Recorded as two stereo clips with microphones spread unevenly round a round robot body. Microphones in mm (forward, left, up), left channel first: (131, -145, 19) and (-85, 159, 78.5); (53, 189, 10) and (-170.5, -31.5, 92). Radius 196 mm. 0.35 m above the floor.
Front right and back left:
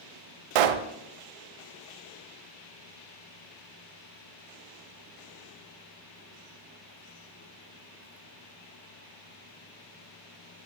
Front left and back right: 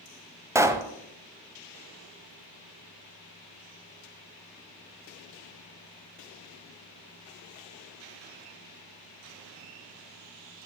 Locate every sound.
0.6 s a pop: 140° left, 0.6 m